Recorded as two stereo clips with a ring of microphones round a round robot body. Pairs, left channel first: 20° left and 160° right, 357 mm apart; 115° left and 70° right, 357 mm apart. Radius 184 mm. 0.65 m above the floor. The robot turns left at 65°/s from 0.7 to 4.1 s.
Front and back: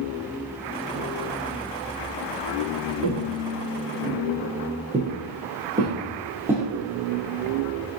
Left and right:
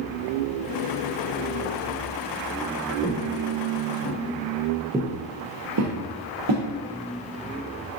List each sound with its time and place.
3.0 s footsteps: 170° right, 1.1 m; by 6.7 s 75° right, 1.1 m